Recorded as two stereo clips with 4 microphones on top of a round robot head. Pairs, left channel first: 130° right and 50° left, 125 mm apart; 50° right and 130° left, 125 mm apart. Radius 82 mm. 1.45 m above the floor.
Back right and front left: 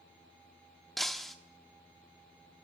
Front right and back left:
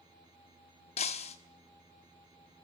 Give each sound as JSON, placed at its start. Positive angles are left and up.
{"t": 1.0, "sound": "breaking glass", "azimuth_deg": -40, "distance_m": 1.1}